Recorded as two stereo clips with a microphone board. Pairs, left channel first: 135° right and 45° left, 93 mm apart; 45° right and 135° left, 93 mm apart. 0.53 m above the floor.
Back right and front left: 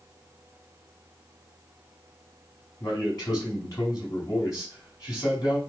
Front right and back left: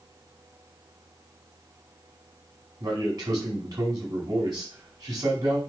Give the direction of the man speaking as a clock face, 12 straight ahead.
6 o'clock.